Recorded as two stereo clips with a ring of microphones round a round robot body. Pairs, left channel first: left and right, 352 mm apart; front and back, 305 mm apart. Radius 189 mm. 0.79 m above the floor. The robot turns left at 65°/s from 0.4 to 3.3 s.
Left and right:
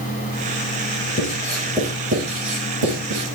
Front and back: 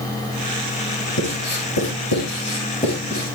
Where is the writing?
30° left, 8.5 m; by 3.4 s 110° right, 8.5 m.